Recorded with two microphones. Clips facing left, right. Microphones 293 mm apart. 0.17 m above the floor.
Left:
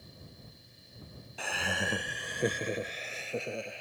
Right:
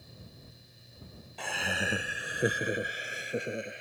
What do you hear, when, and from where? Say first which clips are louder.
1.4 s laughter: even; 5° left (ahead or behind); by 3.8 s 20° right (ahead or behind)